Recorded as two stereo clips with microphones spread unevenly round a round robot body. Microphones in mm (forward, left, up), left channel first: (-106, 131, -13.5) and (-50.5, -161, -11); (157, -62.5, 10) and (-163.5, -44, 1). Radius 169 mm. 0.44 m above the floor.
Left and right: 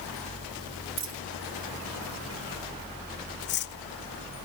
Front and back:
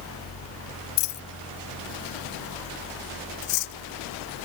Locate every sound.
1.0 s a dropped coin: 5° right
3.4 s cutlery clinking: 40° left